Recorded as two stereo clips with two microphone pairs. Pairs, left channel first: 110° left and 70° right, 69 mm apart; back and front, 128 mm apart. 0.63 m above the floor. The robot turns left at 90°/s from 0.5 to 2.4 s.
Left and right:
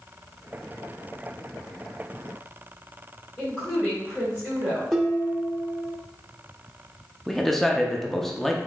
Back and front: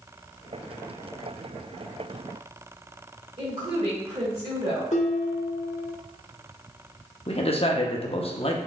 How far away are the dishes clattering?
About 0.9 m.